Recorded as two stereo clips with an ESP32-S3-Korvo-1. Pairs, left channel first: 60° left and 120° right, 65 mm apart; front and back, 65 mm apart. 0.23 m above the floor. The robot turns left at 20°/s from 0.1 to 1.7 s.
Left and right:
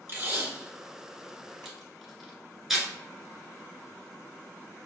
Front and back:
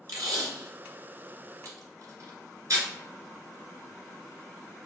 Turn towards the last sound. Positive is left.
turn(degrees=155)